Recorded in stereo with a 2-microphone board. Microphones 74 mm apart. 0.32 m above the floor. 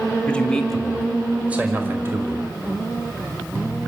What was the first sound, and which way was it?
A man speaking, 15° left (ahead or behind).